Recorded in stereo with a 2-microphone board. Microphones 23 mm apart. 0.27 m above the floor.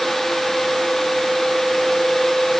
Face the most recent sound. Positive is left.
No sound to turn to.